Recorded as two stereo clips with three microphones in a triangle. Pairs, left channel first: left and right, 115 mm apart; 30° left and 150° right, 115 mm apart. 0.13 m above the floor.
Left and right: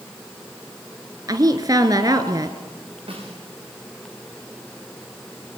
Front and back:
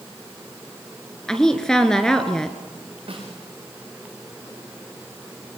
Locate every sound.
1.3 s a woman speaking: 50° right, 1.5 m
3.1 s a snare drum: 120° right, 7.5 m